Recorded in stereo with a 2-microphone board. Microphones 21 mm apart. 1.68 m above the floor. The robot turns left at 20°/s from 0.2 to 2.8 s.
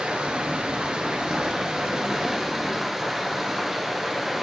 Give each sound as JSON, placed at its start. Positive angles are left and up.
{"t": 0.0, "sound": "running water", "azimuth_deg": -115, "distance_m": 0.8}